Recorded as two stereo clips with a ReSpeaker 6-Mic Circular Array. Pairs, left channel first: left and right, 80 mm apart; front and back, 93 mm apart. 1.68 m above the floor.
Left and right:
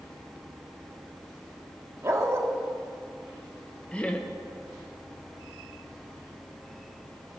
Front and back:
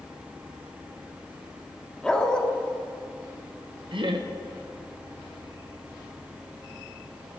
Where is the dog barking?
75° right, 1.4 m.